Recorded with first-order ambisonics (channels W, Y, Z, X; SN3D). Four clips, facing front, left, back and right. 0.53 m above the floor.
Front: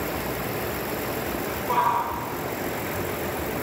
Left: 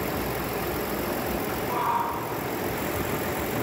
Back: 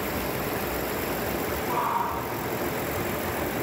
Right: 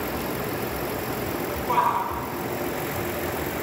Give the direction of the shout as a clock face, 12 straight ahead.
2 o'clock.